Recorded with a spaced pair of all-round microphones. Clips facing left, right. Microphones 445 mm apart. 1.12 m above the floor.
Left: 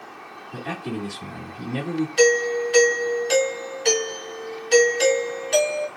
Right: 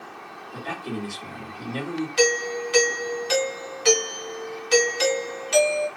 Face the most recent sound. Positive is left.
turn(degrees=-20)  # may be behind; listen again after turning